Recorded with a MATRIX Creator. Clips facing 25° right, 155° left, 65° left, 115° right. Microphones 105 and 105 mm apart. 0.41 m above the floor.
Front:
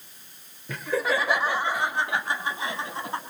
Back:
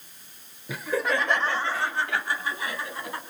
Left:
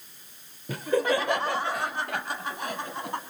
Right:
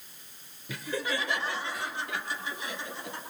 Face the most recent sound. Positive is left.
turn(degrees=40)